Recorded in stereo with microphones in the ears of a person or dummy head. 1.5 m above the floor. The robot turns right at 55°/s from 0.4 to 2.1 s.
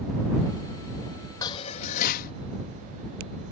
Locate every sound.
1.4 s dishes clattering: 25° left; by 2.3 s 60° left